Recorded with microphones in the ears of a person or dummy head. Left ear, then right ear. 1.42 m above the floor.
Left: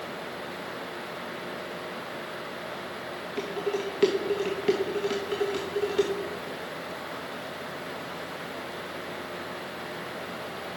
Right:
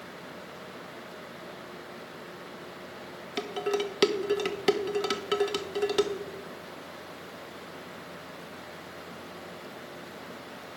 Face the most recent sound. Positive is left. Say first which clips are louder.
# right 1 dB
turn(degrees=-40)  # may be behind; listen again after turning